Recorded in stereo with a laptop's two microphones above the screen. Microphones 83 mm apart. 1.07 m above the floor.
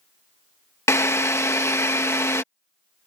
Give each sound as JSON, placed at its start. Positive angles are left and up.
{"t": 0.9, "sound": "a drill", "side_deg": 35}